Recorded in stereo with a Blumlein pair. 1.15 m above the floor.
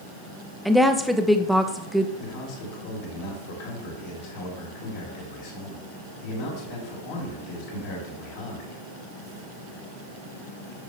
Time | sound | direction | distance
0.7 | a woman speaking | straight ahead | 0.7 m
2.2 | a man speaking | 55° left | 2.5 m